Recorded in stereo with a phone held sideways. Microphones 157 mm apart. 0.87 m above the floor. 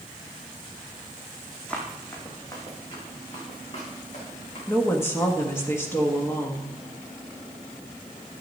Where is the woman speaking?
15° left (ahead or behind), 1.6 m.